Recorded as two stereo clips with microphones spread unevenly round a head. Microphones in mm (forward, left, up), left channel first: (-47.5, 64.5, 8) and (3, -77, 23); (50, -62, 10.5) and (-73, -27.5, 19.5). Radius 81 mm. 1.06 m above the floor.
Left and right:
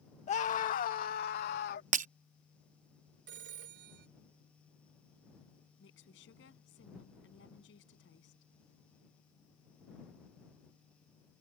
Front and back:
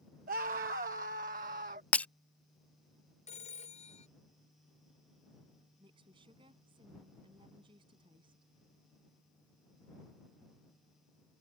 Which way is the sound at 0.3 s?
150° left.